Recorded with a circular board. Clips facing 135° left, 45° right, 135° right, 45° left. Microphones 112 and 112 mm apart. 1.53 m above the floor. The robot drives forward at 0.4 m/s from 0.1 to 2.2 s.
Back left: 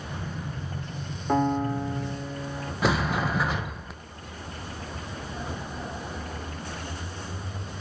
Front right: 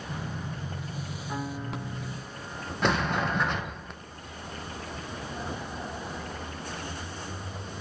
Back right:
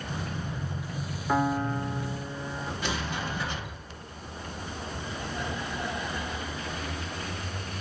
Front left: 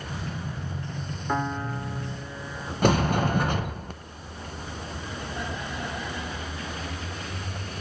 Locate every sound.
1.3 s a piano: 135° left, 0.6 m; by 2.7 s 150° left, 0.9 m
2.8 s a sliding door: 50° left, 0.7 m